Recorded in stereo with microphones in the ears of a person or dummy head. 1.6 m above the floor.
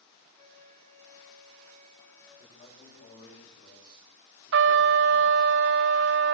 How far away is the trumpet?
About 0.8 m.